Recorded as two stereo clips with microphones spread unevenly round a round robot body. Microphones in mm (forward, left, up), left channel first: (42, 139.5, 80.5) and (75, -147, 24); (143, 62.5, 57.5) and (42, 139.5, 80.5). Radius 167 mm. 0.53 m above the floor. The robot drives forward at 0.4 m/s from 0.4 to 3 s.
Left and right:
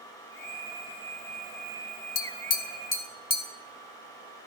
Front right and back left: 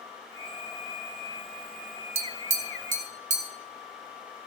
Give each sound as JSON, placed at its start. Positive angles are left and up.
{"t": 2.1, "sound": "tapping", "azimuth_deg": 120, "distance_m": 0.6}